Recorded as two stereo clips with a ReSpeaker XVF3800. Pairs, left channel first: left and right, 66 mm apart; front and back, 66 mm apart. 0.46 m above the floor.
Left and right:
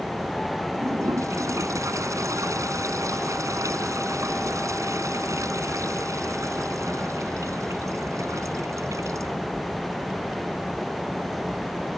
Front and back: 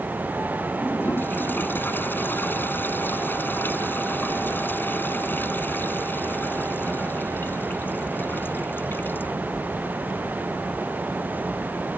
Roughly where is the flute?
No flute in this recording.